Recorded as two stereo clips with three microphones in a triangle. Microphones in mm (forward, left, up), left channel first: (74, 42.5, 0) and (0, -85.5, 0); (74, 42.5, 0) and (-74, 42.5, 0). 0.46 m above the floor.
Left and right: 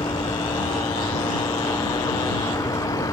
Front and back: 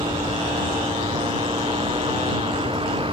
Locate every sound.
0.0 s a vehicle: 125° left